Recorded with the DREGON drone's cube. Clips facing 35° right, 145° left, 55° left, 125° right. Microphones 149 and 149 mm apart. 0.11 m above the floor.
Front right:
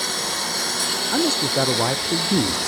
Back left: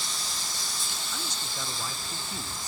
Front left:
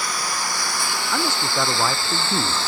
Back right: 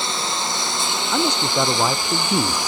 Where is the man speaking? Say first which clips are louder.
Front right 22 dB, back right 4 dB; 50° right.